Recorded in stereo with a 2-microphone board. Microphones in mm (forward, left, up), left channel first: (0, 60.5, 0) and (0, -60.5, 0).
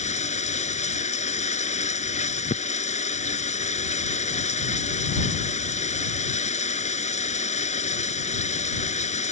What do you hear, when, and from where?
0.0 s running water: 75° left (ahead or behind)